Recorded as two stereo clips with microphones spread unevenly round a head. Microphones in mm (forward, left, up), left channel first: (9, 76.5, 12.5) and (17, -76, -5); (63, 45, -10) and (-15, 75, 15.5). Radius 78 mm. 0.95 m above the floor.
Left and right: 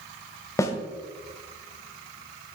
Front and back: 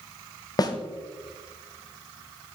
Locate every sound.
0.6 s a snare drum: 25° left, 1.7 m